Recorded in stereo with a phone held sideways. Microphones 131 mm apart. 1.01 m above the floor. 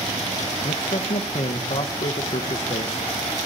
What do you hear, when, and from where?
0.6 s a man speaking: 50° left (ahead or behind), 0.5 m